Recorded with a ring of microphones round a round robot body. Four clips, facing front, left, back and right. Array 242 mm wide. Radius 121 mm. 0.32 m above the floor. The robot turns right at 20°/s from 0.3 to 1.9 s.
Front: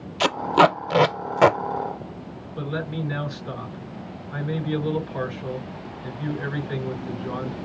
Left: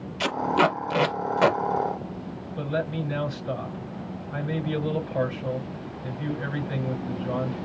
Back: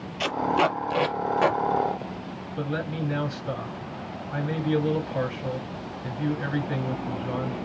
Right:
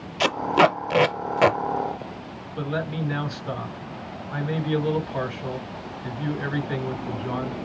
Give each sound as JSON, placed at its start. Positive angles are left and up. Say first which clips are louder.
{"t": 0.2, "sound": "tape being pulled", "louder": "right 3 dB, front 5 dB", "azimuth_deg": -40, "distance_m": 0.6}
{"t": 2.6, "sound": "a man speaking", "louder": "even, front 1 dB", "azimuth_deg": -90, "distance_m": 4.0}